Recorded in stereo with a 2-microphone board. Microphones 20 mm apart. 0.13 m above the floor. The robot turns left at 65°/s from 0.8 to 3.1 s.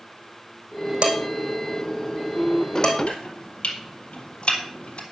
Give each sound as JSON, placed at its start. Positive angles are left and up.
{"t": 1.0, "sound": "dishes clattering", "side_deg": -75, "distance_m": 3.5}
{"t": 3.1, "sound": "chopping", "side_deg": 70, "distance_m": 3.5}